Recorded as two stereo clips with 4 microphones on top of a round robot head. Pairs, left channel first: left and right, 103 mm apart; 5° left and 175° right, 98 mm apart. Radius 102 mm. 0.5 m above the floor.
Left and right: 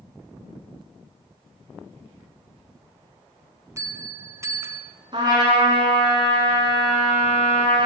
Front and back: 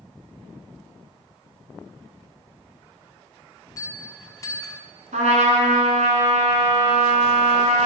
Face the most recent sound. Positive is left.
turn(degrees=-150)